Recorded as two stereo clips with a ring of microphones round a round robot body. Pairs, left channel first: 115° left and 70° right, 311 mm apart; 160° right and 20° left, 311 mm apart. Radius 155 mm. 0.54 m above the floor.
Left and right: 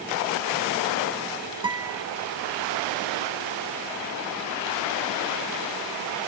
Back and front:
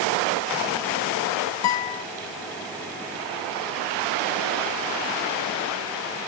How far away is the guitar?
About 0.5 m.